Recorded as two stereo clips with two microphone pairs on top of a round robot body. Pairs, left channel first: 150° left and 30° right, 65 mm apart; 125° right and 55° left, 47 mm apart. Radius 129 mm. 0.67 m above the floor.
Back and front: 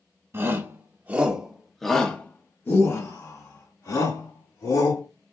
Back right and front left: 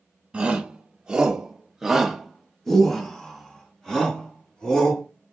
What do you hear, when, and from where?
0.3 s a shout: 5° left, 1.3 m; by 5.0 s 160° left, 2 m